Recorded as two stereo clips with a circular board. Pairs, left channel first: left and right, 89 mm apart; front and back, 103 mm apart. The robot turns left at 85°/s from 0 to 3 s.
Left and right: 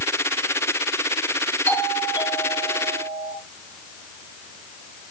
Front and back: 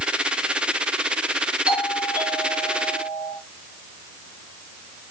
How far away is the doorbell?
About 7 m.